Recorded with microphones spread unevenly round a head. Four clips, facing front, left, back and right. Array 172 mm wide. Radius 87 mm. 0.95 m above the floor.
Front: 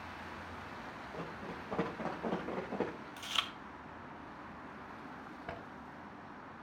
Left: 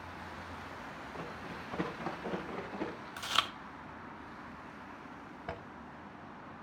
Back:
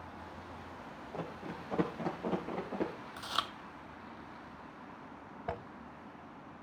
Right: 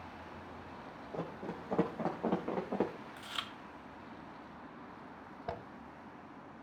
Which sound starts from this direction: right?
Running footsteps, at 1.1 s.